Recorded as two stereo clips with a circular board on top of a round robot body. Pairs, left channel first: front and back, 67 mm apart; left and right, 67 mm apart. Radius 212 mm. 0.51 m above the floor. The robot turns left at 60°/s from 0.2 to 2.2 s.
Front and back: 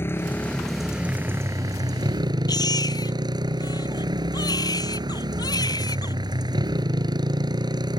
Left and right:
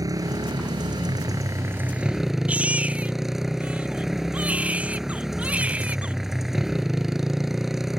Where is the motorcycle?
55° right; by 8.0 s 175° right.